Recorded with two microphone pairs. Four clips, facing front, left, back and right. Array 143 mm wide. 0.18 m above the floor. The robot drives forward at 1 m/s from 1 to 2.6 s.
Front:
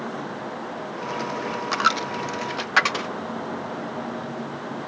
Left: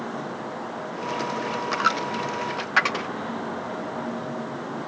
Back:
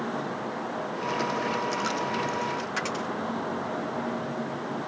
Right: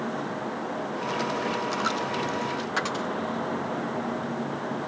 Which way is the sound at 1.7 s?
25° left.